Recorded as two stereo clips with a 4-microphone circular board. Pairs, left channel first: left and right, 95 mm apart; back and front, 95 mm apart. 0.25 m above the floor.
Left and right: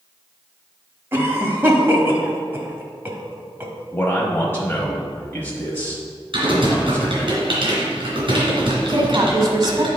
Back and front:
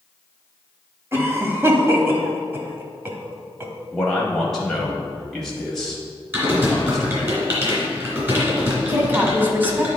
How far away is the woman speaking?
About 1.4 m.